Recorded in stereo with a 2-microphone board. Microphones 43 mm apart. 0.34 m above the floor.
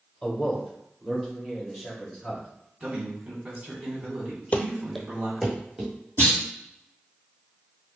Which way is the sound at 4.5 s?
35° left (ahead or behind).